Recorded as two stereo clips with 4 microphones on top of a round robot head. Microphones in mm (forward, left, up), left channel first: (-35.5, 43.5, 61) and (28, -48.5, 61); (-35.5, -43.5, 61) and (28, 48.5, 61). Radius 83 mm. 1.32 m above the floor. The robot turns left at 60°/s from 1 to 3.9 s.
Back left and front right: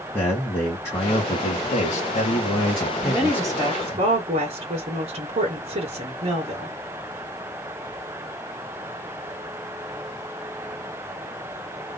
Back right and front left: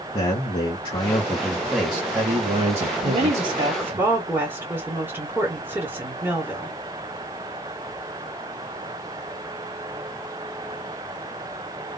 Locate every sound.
0.1 s a man speaking: 170° right, 1.5 m; by 4.0 s 20° left, 1.5 m
3.0 s a woman speaking: 30° left, 1.8 m; by 6.8 s 20° right, 1.8 m